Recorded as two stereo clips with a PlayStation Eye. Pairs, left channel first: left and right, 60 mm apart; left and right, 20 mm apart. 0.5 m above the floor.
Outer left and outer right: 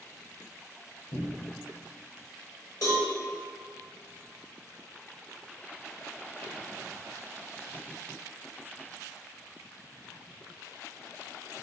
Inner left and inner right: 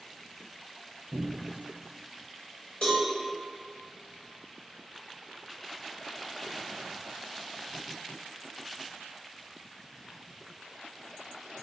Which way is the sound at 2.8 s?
65° left (ahead or behind).